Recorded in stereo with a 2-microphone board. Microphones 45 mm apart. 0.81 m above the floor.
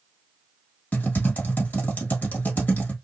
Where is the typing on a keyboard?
40° left (ahead or behind), 1.4 m.